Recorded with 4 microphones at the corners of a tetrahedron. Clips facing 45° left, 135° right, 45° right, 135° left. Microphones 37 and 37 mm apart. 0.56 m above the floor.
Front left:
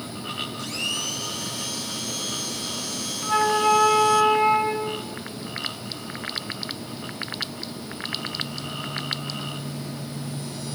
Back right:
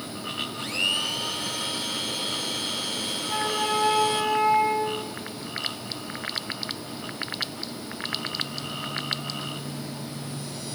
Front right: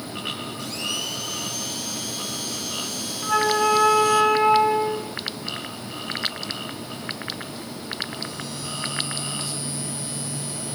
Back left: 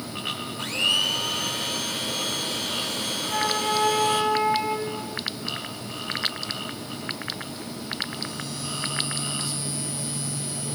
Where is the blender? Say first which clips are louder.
Back right 5 dB, back left 9 dB; 170° left, 2.5 m.